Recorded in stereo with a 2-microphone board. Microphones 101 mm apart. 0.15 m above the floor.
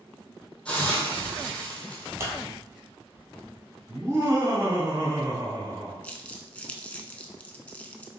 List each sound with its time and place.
0.7 s a hiss: 10° left (ahead or behind), 1.4 m
2.2 s scissors: 25° right (ahead or behind), 1.7 m
3.9 s laughter: 30° right (ahead or behind), 1.8 m
6.0 s crumpling: 15° left (ahead or behind), 0.6 m